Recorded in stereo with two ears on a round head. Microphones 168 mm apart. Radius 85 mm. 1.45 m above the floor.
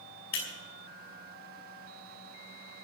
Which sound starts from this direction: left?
Breaking glass, at 0.3 s.